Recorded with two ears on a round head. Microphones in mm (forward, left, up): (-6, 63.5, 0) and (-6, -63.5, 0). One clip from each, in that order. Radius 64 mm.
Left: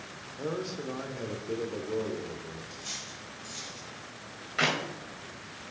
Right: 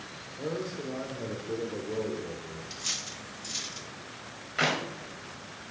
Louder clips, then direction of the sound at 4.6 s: Even; 5° left (ahead or behind).